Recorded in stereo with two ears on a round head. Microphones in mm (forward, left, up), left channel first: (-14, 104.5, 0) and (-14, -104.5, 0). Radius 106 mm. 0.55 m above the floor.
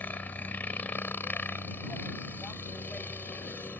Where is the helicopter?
10° left (ahead or behind).